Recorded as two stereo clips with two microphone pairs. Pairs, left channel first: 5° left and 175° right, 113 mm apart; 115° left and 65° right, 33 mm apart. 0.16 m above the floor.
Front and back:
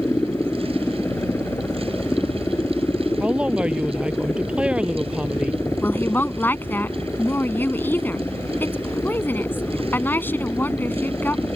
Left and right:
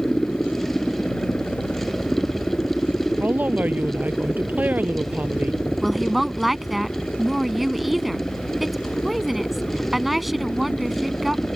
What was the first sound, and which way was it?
A helicopter, 70° left.